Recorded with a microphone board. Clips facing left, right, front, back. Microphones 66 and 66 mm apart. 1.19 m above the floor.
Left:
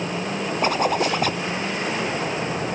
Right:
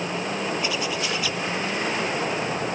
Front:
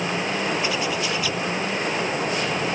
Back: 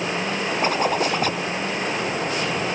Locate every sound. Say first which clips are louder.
0.6 s a zipper: left 6 dB, back 4 dB; 135° left